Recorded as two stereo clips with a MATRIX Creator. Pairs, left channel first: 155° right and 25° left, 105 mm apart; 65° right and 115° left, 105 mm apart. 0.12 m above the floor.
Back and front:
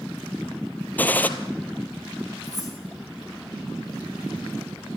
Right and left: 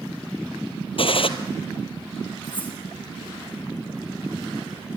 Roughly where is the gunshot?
Right.